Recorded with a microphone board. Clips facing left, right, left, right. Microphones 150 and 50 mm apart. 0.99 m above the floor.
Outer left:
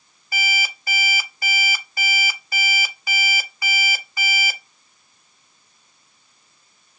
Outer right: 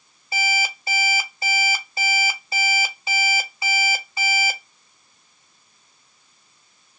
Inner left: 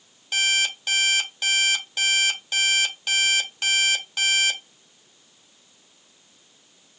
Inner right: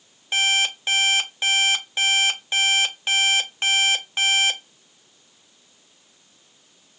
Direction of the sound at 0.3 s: 25° right (ahead or behind).